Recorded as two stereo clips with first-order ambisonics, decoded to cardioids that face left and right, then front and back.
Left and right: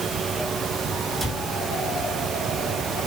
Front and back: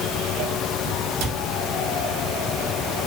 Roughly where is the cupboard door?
Behind.